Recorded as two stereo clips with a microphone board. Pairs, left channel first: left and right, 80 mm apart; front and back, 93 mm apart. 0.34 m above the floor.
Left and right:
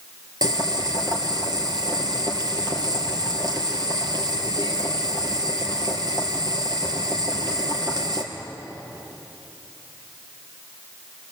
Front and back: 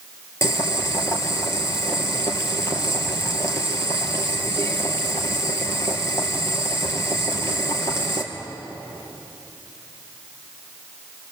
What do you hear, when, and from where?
0.4 s boiling: 55° right, 3.5 m